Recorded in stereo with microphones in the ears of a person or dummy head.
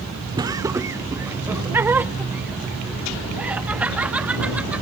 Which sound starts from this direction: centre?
Laughter, at 0.4 s.